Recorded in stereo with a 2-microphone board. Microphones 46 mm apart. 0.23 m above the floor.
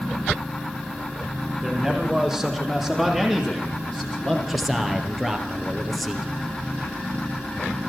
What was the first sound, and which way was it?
A man speaking, 5° right (ahead or behind).